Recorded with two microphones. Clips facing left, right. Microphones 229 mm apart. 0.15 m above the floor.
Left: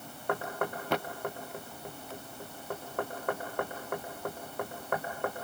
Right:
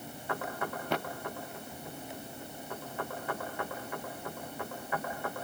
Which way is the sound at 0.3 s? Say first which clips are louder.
Left 4 dB; 60° left (ahead or behind).